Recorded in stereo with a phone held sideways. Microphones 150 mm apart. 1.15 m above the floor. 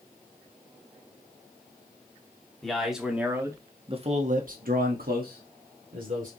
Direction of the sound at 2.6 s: 5° left (ahead or behind).